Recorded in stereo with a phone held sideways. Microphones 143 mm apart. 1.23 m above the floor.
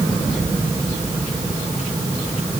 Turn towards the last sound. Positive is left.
No sound to turn to.